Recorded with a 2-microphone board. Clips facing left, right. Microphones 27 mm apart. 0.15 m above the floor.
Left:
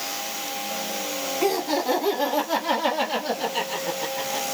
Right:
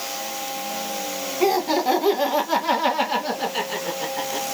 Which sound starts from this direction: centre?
Laughter, at 1.4 s.